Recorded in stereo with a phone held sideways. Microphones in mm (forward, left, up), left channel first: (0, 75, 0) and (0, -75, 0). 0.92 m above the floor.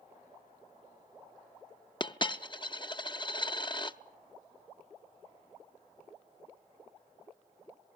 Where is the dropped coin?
35° left (ahead or behind), 0.7 m.